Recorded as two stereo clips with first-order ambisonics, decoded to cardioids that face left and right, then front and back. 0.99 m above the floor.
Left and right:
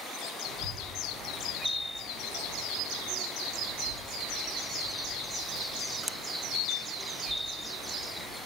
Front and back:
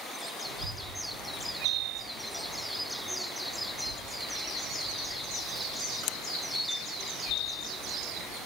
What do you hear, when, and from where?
0.4 s a child speaking: 150° right, 3 m